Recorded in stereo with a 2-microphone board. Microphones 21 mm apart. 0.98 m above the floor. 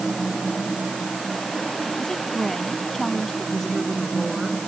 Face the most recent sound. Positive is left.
turn(degrees=15)  # may be behind; listen again after turning